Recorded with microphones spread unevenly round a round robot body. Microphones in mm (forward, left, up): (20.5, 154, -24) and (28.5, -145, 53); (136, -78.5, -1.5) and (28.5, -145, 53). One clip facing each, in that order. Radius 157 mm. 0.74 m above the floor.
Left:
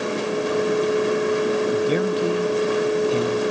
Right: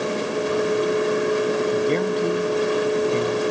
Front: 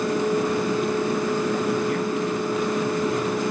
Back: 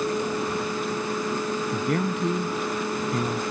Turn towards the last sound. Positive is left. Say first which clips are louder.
# even, front 2 dB
turn(degrees=180)